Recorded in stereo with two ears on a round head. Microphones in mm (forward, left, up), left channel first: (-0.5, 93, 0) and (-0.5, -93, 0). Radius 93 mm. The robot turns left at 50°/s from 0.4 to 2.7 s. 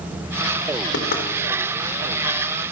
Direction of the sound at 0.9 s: 55° left (ahead or behind).